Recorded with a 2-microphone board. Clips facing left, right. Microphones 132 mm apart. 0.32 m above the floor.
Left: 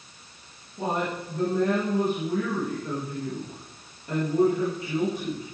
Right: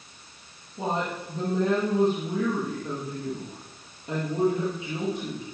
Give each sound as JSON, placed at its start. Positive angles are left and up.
{"t": 0.8, "sound": "a woman speaking", "side_deg": -15, "distance_m": 6.5}